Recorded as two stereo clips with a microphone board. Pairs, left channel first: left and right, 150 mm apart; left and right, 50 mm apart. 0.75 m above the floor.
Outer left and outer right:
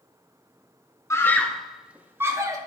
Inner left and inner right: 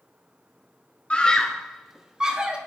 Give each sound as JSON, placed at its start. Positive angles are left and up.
{"t": 1.1, "sound": "a scream", "side_deg": 20, "distance_m": 0.7}